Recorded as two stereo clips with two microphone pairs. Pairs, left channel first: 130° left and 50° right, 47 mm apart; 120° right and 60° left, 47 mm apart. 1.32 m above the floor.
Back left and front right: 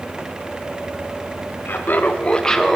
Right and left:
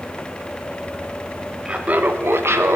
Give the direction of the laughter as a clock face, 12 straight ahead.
8 o'clock.